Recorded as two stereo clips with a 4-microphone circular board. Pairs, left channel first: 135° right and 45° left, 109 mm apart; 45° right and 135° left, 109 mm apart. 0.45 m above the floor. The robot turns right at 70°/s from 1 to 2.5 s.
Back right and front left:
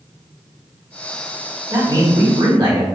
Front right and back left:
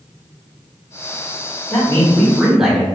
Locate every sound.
1.7 s a man speaking: 5° right, 1.7 m; by 2.9 s 55° left, 1.7 m